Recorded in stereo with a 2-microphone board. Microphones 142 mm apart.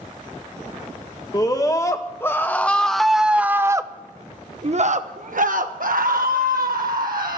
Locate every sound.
1.3 s a scream: 30° left (ahead or behind), 1.6 m; by 7.4 s 85° right, 1.9 m